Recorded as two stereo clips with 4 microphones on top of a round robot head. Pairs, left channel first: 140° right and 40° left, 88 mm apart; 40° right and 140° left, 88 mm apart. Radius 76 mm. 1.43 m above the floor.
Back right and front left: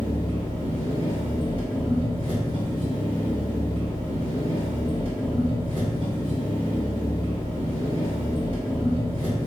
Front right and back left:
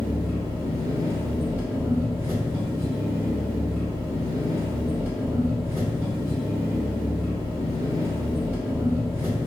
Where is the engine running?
70° left, 1.4 m.